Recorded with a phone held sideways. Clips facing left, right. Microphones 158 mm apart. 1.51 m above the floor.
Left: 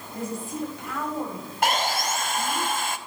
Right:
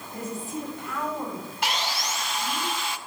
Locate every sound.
0.1 s a woman speaking: 10° left (ahead or behind), 7 m; by 2.6 s 45° left (ahead or behind), 7.5 m
1.6 s sawing: 50° left (ahead or behind), 0.6 m